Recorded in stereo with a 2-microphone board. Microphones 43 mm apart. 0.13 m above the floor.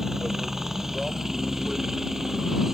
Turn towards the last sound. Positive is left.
turn(degrees=-10)  # may be behind; listen again after turning